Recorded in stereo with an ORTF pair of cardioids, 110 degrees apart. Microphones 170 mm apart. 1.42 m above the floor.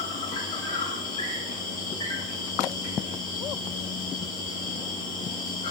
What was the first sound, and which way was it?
An insect, 55° left.